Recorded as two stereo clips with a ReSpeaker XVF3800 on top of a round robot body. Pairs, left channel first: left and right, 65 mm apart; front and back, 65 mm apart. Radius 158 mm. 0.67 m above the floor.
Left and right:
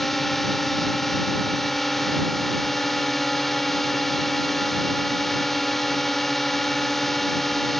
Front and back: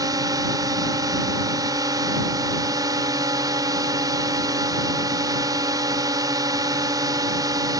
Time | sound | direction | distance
0.0 | a drone | 175° left | ?